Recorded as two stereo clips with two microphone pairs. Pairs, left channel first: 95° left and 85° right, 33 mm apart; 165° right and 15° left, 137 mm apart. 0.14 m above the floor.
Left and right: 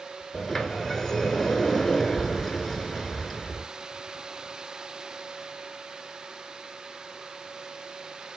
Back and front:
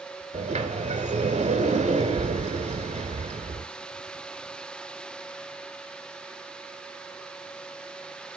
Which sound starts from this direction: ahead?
A sliding door, at 0.3 s.